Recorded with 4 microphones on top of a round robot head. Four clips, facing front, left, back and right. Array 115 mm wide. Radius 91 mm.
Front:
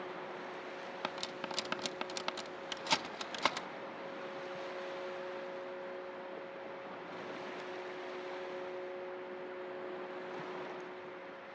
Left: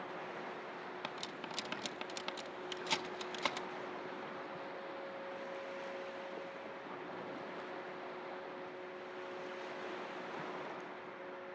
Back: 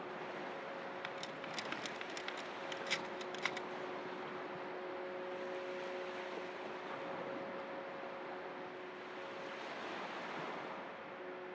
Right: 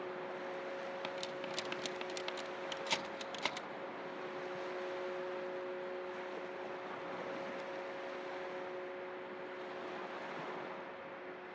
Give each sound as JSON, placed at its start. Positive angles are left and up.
{"t": 1.0, "sound": "cutlery clinking", "azimuth_deg": 0, "distance_m": 1.1}